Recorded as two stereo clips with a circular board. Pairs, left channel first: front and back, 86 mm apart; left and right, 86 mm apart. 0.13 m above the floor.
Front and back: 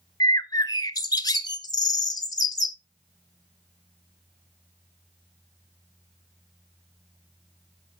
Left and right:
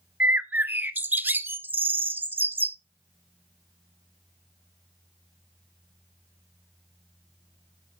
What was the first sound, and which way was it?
A bird, 25° right.